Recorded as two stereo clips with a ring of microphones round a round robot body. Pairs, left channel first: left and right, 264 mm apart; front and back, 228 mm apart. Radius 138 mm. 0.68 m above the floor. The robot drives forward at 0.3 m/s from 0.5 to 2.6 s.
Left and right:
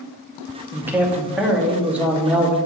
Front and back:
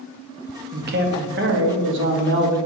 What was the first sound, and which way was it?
A man speaking, 170° right.